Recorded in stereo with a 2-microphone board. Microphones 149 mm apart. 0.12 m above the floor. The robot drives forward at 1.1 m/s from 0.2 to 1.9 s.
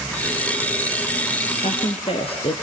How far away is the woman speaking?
About 2 m.